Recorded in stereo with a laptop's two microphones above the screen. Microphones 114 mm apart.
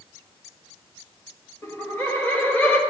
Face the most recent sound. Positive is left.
turn(degrees=15)  # may be behind; listen again after turning